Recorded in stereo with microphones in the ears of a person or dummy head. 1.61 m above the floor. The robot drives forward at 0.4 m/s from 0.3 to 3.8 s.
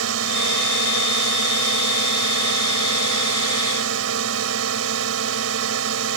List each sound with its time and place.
0.0 s a drone: 85° right